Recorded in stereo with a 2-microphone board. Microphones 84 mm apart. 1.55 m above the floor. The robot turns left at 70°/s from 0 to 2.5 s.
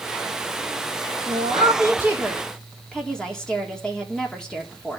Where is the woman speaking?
100° right, 3.5 m; by 5.0 s 170° left, 3.5 m.